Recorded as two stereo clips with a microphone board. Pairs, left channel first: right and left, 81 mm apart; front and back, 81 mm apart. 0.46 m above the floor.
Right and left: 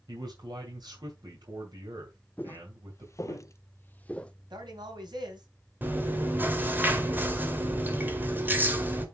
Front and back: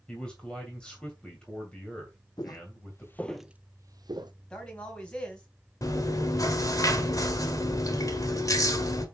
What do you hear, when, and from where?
0.1 s a man speaking: 80° left, 2.5 m
2.4 s footsteps: 25° right, 1.2 m; by 4.3 s 165° right, 1.1 m
4.5 s a man speaking: 80° left, 3.5 m
5.8 s chewing: 30° left, 1.8 m